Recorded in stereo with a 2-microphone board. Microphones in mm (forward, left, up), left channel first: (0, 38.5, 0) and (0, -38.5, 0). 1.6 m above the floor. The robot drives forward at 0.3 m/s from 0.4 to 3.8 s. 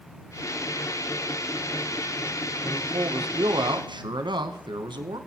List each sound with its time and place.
2.6 s a man speaking: 80° right, 0.7 m; by 5.2 s 75° right (ahead or behind), 0.7 m